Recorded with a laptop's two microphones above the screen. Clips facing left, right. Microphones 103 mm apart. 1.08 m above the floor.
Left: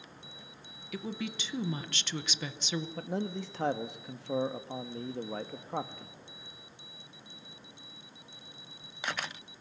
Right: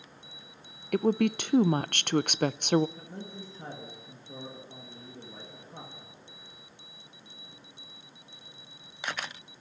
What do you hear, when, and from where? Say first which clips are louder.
0.9 s a woman speaking: right 13 dB; 55° right (ahead or behind), 0.6 m
3.0 s a man speaking: left 8 dB; 70° left (ahead or behind), 1.7 m